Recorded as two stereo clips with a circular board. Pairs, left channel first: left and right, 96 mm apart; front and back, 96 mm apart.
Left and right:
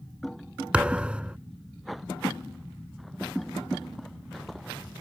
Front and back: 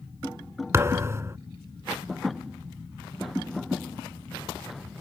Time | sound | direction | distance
0.7 | a thud | 160° right | ?